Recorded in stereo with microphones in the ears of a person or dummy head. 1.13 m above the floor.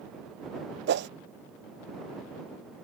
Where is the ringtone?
I don't hear a ringtone.